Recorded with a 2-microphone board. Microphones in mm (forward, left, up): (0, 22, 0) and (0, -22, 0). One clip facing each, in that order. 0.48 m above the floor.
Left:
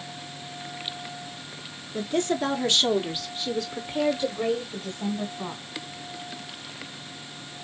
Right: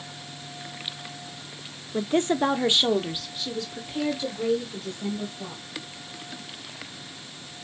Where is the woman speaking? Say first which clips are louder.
Right 2 dB; 35° right (ahead or behind), 1.0 m; by 5.6 s 30° left (ahead or behind), 2 m.